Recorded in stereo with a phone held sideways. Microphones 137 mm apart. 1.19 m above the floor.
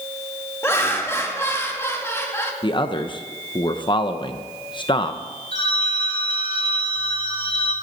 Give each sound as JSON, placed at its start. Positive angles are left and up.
{"t": 0.6, "sound": "laughter", "side_deg": 20, "distance_m": 2.0}
{"t": 2.6, "sound": "a man speaking", "side_deg": 35, "distance_m": 0.7}
{"t": 5.5, "sound": "a phone ringing", "side_deg": 50, "distance_m": 2.5}